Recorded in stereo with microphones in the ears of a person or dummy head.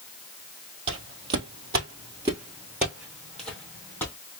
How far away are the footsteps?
About 1.5 m.